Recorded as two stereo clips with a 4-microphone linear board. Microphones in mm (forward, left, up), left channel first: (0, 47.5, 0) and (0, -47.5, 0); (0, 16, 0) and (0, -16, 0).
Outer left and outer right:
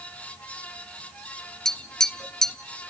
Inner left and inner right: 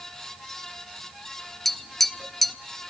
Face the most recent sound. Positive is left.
turn(degrees=5)  # may be behind; listen again after turning